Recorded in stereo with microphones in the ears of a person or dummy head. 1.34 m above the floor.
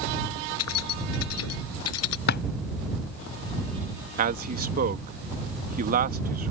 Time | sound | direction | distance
0.6 | keys jangling | 80° left | ?
2.3 | a drawer | 55° left (ahead or behind) | ?
4.2 | a man speaking | 45° right (ahead or behind) | ?